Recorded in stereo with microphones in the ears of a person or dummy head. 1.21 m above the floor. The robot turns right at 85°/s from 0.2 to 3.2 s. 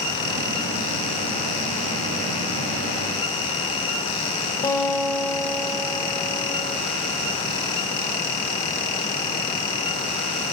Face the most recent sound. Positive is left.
turn(degrees=25)  # may be behind; listen again after turning